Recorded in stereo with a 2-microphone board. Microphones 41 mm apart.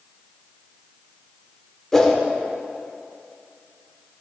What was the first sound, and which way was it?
A whoosh, 10° left (ahead or behind).